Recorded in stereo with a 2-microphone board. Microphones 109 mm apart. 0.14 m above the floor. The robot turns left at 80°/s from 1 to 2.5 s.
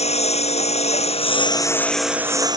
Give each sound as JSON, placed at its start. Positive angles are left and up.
{"t": 0.0, "sound": "a lawn mower", "azimuth_deg": 80}